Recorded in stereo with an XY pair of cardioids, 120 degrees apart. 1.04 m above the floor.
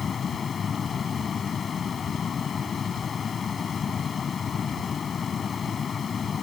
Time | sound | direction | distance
0.0 | a fan | 40° left | ?